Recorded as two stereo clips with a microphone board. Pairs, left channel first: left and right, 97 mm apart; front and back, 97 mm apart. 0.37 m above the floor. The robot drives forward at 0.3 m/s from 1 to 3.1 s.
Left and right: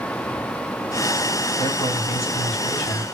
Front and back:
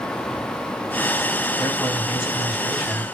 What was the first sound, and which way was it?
A man speaking, 85° left.